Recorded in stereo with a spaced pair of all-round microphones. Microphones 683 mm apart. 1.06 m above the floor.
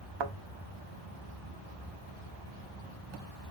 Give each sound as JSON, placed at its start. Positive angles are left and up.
{"t": 0.2, "sound": "a thud", "side_deg": -45, "distance_m": 0.5}